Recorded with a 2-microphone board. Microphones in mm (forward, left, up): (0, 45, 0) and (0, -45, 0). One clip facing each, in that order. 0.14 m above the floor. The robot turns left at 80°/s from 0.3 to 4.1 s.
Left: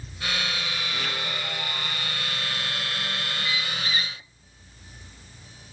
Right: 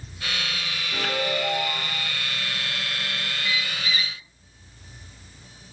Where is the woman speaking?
I don't hear a woman speaking.